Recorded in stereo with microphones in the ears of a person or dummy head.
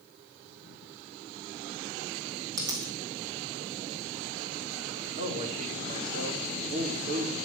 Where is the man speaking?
35° right (ahead or behind), 4.5 m.